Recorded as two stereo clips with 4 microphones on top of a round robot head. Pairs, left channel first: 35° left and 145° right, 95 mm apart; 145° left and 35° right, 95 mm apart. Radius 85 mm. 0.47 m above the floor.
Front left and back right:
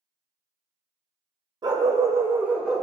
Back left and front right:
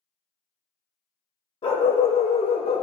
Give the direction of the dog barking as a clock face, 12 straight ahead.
6 o'clock.